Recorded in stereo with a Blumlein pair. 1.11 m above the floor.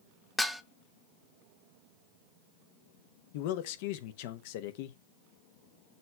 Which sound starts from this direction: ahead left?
A man speaking, at 3.3 s.